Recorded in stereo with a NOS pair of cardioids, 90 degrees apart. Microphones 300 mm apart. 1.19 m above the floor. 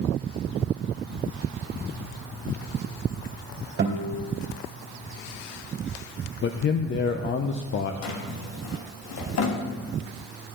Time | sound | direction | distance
3.8 | a guitar | 45° right | 2.5 m
6.4 | a man speaking | 40° left | 0.6 m
8.0 | a drawer | 60° left | 1.3 m